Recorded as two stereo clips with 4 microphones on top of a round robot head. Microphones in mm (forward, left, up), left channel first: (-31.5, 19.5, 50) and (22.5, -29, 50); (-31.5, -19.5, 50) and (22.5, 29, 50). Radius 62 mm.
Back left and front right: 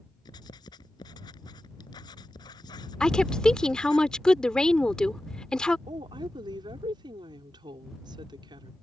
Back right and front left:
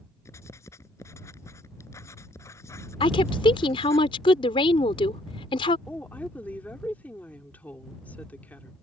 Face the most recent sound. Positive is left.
turn(degrees=-65)